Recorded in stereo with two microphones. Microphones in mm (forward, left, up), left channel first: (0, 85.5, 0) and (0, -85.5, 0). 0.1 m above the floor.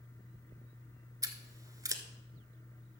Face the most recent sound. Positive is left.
turn(degrees=-20)  # may be behind; listen again after turning